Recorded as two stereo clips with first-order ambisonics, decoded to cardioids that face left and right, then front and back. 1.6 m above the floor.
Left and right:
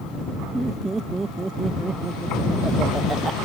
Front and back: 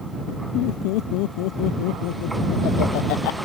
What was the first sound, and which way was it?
Laughter, 15° right.